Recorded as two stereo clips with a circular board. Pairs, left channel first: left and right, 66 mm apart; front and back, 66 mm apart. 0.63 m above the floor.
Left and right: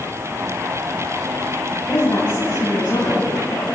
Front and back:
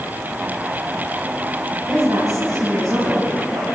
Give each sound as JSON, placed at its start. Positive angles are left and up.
{"t": 1.9, "sound": "a woman speaking", "azimuth_deg": 150, "distance_m": 5.5}